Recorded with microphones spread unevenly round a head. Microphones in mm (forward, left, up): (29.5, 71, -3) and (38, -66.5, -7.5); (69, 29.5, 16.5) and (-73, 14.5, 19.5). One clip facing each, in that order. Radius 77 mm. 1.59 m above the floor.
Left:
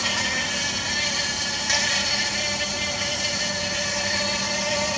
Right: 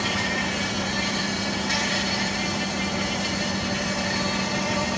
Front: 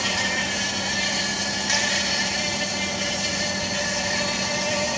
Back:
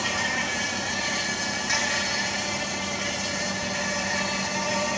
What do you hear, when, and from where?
0.0 s an insect: 55° left, 3 m